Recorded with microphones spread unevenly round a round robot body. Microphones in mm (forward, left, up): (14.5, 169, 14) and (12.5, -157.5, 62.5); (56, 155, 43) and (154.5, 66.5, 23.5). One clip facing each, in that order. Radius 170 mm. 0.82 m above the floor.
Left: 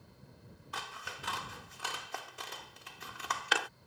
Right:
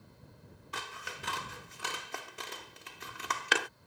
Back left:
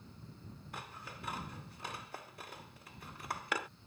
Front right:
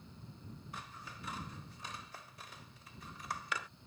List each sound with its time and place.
0.7 s scissors: 155° right